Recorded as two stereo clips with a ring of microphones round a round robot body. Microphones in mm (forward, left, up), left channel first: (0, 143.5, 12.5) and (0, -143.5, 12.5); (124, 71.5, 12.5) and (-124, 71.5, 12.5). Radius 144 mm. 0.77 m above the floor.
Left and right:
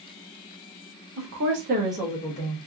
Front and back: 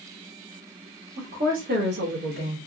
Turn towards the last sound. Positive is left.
turn(degrees=135)